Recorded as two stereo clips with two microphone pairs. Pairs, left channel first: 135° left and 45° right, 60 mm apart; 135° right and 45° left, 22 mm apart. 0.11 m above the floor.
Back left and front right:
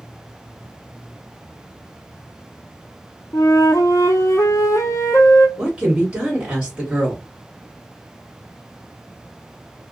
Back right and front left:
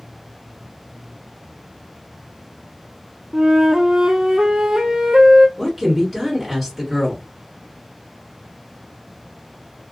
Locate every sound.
3.3 s a flute: 110° left, 0.5 m
5.6 s a woman speaking: 55° right, 1.5 m